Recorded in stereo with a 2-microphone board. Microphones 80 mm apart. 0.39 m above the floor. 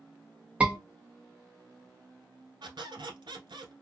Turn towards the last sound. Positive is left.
turn(degrees=-85)